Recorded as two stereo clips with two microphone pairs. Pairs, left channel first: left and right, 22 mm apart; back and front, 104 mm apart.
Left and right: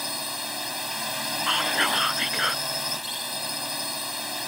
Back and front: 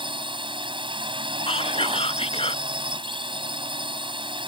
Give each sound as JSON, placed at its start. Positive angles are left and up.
{"t": 0.0, "sound": "a drone", "azimuth_deg": -10}
{"t": 1.5, "sound": "whispering", "azimuth_deg": -165}